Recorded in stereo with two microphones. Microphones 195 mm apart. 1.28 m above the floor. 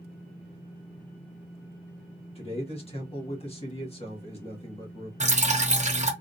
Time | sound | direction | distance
2.4 | a man speaking | 30° left (ahead or behind) | 1.4 m
5.2 | dripping | 35° right (ahead or behind) | 0.7 m